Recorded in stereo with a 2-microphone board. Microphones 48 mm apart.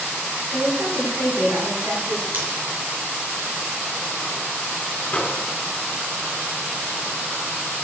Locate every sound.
0.5 s a woman speaking: 75° right (ahead or behind), 9.5 m
2.3 s scissors: 50° right (ahead or behind), 5.5 m
5.1 s a microwave: 20° left (ahead or behind), 2.5 m